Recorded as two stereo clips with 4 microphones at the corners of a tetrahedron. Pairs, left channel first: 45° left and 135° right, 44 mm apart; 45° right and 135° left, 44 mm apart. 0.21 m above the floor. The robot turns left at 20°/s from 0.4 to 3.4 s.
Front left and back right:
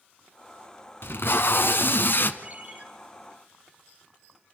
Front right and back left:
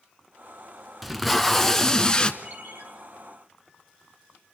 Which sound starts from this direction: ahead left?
Tape being pulled, at 1.0 s.